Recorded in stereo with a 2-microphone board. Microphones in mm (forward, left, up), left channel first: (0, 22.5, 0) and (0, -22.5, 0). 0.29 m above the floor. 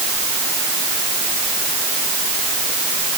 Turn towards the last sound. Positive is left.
No sound to turn to.